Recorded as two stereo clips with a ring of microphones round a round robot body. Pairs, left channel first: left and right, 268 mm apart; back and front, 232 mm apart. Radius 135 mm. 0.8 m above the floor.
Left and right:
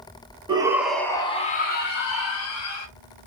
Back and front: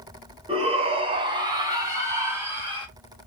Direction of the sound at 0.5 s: 40° right.